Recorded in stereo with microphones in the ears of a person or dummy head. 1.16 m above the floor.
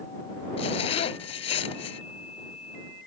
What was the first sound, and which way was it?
A zipper, 35° left (ahead or behind).